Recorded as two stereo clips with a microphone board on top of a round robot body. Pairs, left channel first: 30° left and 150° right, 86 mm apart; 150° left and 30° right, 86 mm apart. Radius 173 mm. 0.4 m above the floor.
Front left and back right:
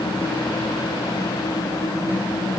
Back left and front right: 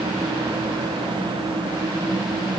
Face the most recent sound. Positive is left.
No sound to turn to.